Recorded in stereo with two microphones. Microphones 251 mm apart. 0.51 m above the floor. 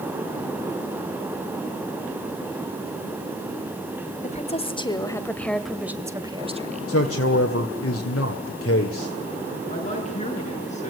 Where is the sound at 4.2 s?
25° left (ahead or behind), 2.5 m; by 7.0 s 30° right (ahead or behind), 1.9 m.